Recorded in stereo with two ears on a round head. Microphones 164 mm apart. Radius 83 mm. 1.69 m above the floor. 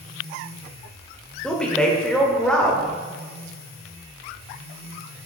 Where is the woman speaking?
5° left (ahead or behind), 1.0 m.